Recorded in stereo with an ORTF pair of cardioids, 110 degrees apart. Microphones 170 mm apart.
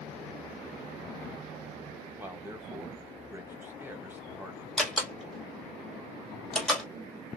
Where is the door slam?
5° left, 1.3 m.